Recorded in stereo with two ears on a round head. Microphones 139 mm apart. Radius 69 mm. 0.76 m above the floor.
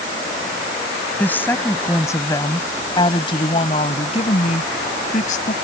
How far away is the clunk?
No clunk in this recording.